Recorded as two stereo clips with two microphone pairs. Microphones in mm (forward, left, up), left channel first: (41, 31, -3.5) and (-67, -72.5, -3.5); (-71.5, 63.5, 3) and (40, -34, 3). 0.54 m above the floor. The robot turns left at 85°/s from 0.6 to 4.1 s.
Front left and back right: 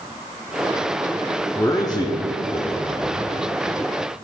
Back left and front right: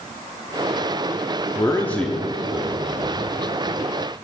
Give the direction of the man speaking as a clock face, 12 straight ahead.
8 o'clock.